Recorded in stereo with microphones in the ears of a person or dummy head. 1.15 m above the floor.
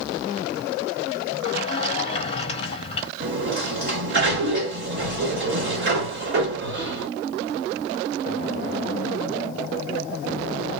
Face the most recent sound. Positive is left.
turn(degrees=-60)  # may be behind; listen again after turning